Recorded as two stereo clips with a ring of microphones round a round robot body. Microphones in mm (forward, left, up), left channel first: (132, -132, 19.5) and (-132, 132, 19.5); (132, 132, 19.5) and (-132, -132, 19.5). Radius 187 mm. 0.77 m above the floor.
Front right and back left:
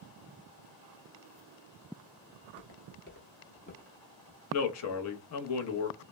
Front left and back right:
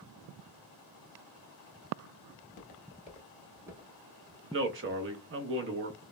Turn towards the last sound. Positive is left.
turn(degrees=-85)